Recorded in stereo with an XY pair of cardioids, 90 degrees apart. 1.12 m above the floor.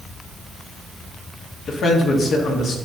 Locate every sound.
1.7 s a man speaking: 65° left, 1.6 m